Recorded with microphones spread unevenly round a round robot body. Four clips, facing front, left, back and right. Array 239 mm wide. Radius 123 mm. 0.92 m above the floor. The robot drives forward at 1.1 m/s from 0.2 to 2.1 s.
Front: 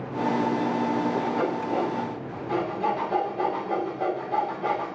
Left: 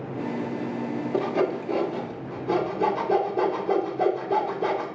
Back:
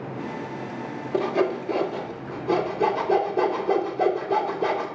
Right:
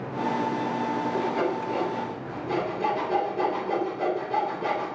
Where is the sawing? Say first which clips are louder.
Left 2 dB, back 2 dB; 145° left, 1.7 m; by 4.9 s 160° left, 2.5 m.